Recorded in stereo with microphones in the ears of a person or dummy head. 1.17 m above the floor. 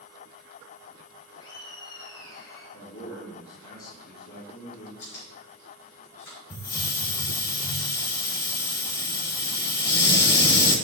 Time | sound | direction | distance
1.4 | laughter | 75° left (ahead or behind) | 2 m
2.7 | a man speaking | 60° left (ahead or behind) | 3.5 m
5.0 | chewing | 50° left (ahead or behind) | 3.5 m
6.5 | a hiss | 35° left (ahead or behind) | 1.3 m